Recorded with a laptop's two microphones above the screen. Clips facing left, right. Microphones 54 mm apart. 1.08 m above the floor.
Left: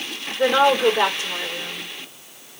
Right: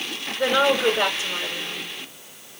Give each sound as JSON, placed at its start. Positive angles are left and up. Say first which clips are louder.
{"t": 0.4, "sound": "a woman speaking", "louder": "left 3 dB", "side_deg": 50, "distance_m": 3.5}